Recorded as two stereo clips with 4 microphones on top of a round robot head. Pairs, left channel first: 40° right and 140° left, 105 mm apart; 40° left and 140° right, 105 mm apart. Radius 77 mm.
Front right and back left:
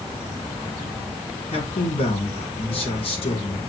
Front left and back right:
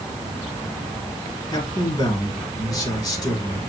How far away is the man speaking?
About 4.5 m.